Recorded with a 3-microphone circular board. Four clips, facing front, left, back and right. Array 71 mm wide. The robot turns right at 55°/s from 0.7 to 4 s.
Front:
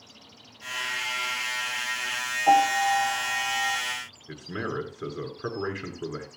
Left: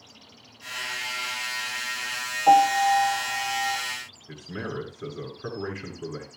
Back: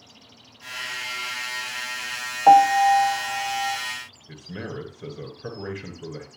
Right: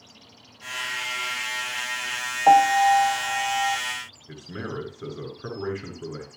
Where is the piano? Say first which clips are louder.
Right 2 dB, back 7 dB; 155° right, 1.3 m; by 3.8 s 85° right, 1.3 m.